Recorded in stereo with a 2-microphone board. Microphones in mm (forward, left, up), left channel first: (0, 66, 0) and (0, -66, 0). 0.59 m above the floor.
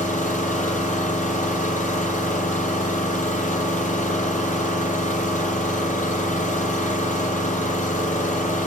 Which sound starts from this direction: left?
An engine running, at 0.0 s.